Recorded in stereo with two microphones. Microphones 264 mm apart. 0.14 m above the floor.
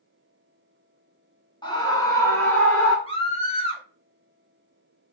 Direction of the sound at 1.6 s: 15° left (ahead or behind).